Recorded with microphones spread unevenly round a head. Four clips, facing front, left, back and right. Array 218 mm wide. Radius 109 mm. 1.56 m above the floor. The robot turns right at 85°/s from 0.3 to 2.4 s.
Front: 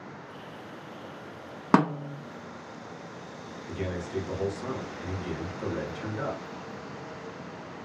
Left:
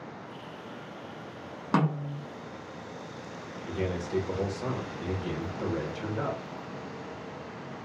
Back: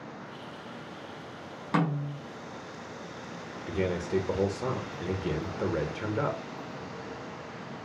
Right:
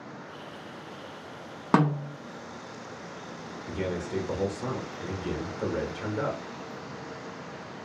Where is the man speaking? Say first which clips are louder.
Even, back 5 dB; 170° right, 0.8 m.